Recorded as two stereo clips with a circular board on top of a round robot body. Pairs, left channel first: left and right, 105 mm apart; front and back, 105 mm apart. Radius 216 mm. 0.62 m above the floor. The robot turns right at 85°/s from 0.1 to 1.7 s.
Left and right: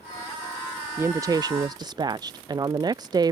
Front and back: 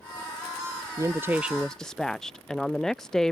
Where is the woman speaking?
145° right; by 3.3 s 85° right.